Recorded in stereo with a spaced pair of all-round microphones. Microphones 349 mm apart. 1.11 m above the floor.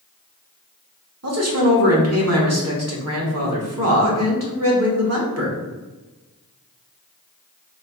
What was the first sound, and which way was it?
A man speaking, 45° right (ahead or behind).